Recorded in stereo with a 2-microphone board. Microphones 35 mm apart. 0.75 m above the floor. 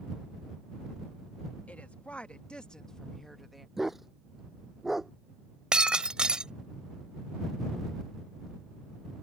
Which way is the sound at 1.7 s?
45° left (ahead or behind).